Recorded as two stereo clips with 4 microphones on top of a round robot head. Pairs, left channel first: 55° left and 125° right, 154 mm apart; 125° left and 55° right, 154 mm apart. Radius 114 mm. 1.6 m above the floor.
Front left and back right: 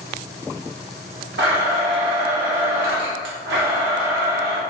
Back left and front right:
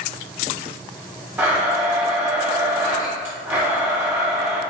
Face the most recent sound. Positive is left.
turn(degrees=-130)